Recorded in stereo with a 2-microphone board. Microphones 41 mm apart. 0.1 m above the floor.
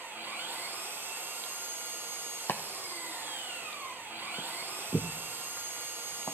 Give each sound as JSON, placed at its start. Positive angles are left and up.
{"t": 0.0, "sound": "an engine running", "side_deg": -55, "distance_m": 2.5}
{"t": 2.5, "sound": "chopping", "side_deg": 75, "distance_m": 0.9}